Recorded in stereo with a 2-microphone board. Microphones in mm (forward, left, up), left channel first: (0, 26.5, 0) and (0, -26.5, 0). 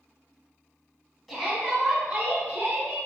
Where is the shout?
Centre (ahead or behind), 1.1 m; by 3.0 s 30° right (ahead or behind), 1.5 m.